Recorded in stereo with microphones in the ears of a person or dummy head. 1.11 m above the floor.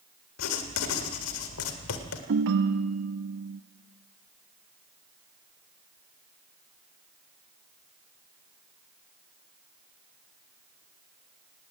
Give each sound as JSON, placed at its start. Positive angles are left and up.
{"t": 0.4, "sound": "writing", "side_deg": 80, "distance_m": 2.0}
{"t": 2.3, "sound": "a ringtone", "side_deg": -60, "distance_m": 0.9}